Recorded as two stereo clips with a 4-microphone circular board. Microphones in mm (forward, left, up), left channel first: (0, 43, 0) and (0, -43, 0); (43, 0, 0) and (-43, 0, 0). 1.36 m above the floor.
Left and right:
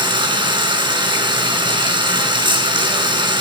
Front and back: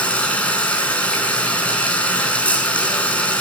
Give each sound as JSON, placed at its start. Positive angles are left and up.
{"t": 0.0, "sound": "running water", "azimuth_deg": -75, "distance_m": 6.5}